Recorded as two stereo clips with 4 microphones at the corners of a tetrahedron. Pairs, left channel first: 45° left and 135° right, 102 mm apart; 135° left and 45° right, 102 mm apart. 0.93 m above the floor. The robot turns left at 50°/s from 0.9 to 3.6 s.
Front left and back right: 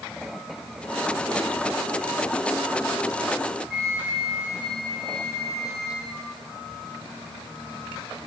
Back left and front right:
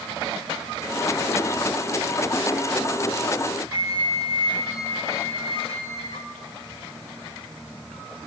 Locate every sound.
3.7 s a flute: 135° left, 4.5 m